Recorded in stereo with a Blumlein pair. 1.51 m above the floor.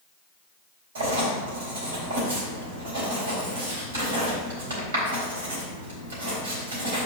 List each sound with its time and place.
0.9 s writing: 65° right, 4 m